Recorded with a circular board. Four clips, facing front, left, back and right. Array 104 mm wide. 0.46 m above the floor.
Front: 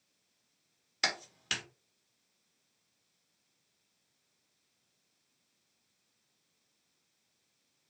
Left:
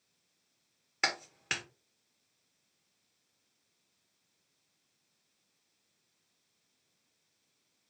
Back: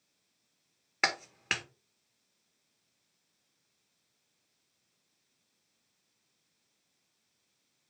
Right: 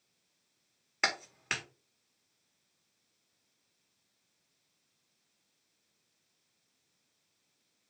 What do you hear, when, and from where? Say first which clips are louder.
1.0 s a clap: right 1 dB, back 4 dB; 175° right, 1.3 m